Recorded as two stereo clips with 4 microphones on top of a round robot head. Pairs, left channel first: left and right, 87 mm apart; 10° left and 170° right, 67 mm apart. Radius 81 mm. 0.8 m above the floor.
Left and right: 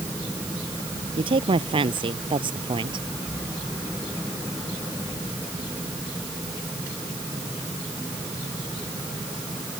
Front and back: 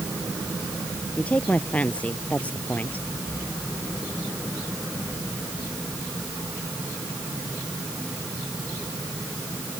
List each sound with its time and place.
1.2 s a woman speaking: 65° right